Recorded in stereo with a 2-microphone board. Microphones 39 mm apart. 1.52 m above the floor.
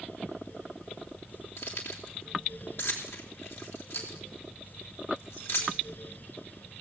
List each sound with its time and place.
1.6 s keys jangling: 80° left, 3.5 m